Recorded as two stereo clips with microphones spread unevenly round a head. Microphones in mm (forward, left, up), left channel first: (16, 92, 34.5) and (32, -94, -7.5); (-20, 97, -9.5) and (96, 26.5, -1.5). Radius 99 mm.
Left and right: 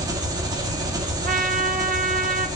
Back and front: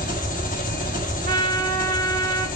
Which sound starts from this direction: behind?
An engine running, at 0.0 s.